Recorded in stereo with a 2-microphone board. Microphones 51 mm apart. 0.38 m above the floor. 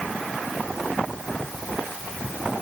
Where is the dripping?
I don't hear dripping.